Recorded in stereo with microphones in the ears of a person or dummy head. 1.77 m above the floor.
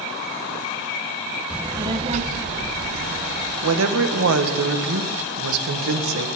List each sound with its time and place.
1.5 s a child speaking: 5° right (ahead or behind), 1.0 m; by 3.5 s 65° right (ahead or behind), 2 m
3.6 s a woman speaking: 70° right (ahead or behind), 1.6 m